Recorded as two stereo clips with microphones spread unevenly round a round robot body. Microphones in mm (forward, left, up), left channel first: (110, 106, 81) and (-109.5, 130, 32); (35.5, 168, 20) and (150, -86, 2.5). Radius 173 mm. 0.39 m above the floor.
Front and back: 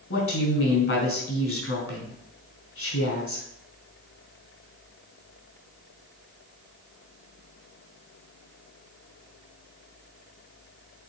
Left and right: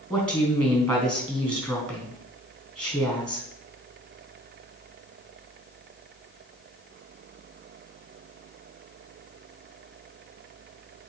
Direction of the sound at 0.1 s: 25° left.